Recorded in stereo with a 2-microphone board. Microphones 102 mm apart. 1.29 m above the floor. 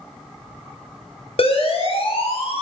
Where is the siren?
80° left, 6.5 m; by 2.6 s 85° left, 6 m.